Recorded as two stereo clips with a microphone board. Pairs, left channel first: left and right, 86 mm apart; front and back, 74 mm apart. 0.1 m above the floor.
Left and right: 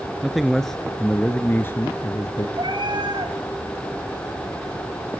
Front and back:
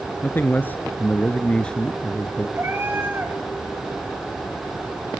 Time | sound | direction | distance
0.2 | a man speaking | 10° right | 1.4 m
2.6 | a cat meowing | 120° right | 4.5 m